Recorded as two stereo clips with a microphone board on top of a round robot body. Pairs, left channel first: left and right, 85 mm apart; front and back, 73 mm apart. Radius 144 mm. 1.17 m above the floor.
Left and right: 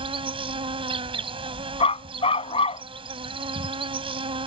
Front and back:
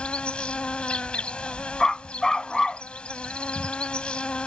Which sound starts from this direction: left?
A dog barking, at 1.8 s.